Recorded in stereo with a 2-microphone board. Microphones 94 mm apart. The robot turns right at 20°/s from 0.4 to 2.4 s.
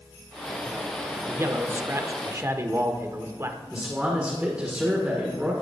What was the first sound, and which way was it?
A man speaking, 30° right (ahead or behind).